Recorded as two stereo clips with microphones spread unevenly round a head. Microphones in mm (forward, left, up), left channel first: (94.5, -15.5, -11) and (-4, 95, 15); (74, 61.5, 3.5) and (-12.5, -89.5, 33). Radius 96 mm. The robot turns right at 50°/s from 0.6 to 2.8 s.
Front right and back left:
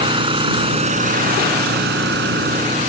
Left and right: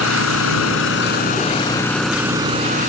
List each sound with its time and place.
0.0 s an engine running: 80° left; by 2.9 s 170° right